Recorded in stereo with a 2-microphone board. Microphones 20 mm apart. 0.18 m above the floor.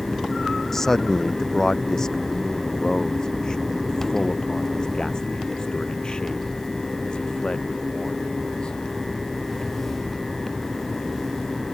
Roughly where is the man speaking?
Centre.